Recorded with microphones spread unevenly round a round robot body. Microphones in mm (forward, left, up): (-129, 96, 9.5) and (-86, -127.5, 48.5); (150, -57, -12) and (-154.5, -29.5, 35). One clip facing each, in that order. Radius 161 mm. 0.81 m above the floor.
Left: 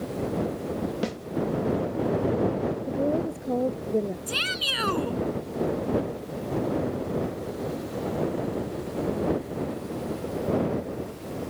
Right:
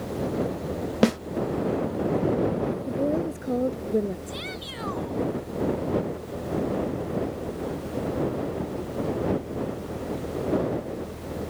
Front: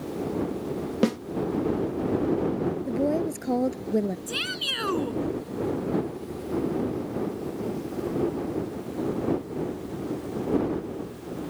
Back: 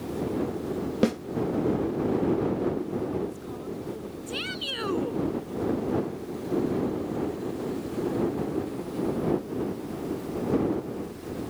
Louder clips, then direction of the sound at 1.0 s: Right 9 dB, front 1 dB; 85° right.